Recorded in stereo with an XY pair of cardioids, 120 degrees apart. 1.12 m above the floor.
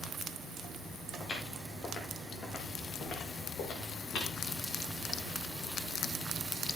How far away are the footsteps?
About 7.5 m.